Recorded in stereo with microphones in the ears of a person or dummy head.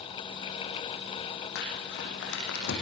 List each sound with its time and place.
1.6 s crumpling: 75° left (ahead or behind), 8.5 m